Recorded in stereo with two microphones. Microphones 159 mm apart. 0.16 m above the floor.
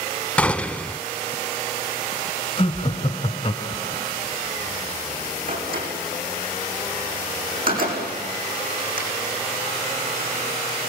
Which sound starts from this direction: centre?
A gunshot, at 0.4 s.